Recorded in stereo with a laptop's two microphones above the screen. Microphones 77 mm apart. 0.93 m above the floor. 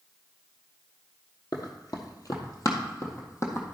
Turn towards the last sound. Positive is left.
turn(degrees=35)  # may be behind; listen again after turning